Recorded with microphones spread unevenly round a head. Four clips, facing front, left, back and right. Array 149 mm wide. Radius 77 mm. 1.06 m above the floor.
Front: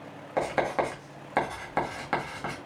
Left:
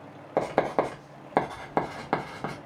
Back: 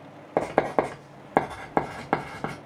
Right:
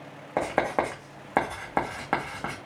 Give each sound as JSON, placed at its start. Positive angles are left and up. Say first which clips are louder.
{"t": 0.4, "sound": "writing", "louder": "left 1 dB, back 3 dB", "azimuth_deg": 175, "distance_m": 1.1}